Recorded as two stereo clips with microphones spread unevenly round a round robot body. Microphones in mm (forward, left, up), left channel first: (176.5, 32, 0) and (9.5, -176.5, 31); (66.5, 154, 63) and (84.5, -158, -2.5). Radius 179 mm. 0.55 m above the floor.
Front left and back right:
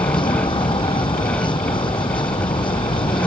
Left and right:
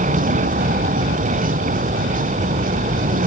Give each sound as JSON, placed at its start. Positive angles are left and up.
{"t": 0.0, "sound": "a vehicle", "azimuth_deg": -20}